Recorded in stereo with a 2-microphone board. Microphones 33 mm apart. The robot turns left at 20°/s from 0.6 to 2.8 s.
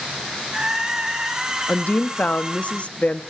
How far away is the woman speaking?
About 0.8 m.